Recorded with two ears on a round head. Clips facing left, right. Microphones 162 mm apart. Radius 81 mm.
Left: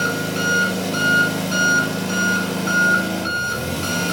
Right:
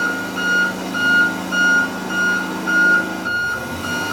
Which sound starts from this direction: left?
An engine running, at 0.0 s.